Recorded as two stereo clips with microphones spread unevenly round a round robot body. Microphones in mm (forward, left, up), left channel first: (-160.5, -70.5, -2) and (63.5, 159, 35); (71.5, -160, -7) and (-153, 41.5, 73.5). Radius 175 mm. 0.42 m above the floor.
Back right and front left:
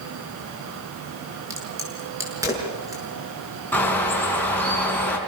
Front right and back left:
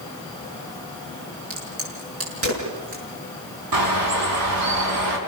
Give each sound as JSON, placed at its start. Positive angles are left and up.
{"t": 1.5, "sound": "a crack", "azimuth_deg": 125, "distance_m": 7.0}
{"t": 3.7, "sound": "a bird", "azimuth_deg": 140, "distance_m": 4.0}